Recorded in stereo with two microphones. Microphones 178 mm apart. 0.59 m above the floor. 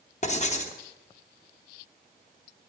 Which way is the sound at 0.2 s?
40° left (ahead or behind).